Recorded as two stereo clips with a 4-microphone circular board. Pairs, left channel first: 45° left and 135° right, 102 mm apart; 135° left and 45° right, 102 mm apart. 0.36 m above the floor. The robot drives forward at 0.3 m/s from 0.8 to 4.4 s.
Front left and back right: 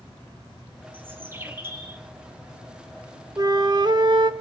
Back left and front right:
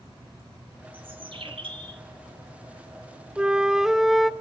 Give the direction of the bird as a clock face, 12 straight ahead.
2 o'clock.